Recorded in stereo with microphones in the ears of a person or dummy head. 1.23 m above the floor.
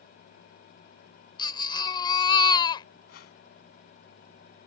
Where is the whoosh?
65° left (ahead or behind).